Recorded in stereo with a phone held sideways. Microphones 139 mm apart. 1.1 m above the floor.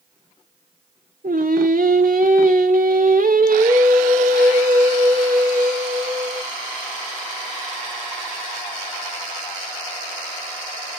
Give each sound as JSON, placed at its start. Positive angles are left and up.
{"t": 1.2, "sound": "singing", "side_deg": -80, "distance_m": 1.8}